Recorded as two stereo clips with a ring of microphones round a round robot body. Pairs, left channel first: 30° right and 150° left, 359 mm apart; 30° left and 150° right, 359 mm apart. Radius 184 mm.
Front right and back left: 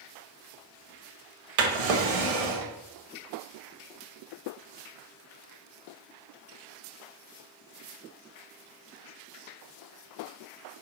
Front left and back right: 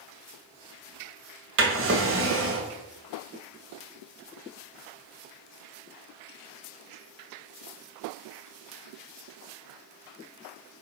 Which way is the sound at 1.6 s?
150° left.